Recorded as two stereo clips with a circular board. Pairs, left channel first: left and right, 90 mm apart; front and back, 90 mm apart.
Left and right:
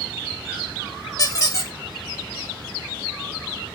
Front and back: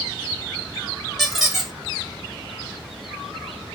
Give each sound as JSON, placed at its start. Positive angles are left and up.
{"t": 1.2, "sound": "a squeak", "azimuth_deg": 90, "distance_m": 1.0}